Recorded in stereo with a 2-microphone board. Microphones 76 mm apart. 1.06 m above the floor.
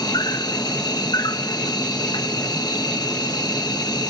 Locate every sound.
0.0 s an insect: 60° left (ahead or behind)